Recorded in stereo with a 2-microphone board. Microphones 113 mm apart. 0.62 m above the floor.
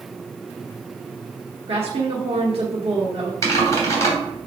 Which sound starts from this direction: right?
A woman speaking, at 1.7 s.